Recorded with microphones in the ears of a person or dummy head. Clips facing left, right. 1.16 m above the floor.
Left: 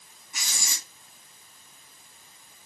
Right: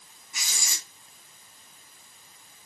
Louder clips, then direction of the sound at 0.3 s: Left 1 dB; 45° left (ahead or behind).